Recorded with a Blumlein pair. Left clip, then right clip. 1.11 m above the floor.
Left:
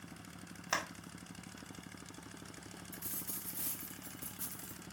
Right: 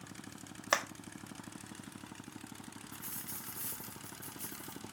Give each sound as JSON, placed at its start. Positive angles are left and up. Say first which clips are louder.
{"t": 0.7, "sound": "a clap", "louder": "right 4 dB", "azimuth_deg": -25, "distance_m": 1.1}
{"t": 2.9, "sound": "a dropped coin", "louder": "even", "azimuth_deg": 15, "distance_m": 2.5}